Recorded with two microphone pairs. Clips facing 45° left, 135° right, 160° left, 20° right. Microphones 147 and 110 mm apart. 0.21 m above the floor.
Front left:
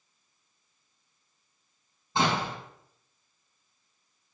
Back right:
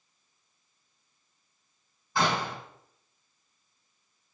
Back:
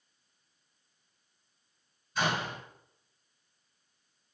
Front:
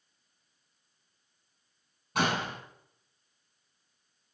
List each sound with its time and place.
2.1 s a door slam: 20° right, 6 m